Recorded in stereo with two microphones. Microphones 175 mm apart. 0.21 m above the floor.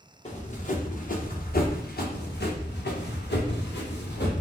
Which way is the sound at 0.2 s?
40° left (ahead or behind).